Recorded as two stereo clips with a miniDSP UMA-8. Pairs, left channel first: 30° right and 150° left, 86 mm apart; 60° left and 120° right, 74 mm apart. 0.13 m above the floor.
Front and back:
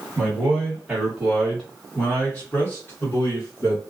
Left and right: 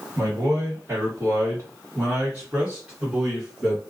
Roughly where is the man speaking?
Behind right.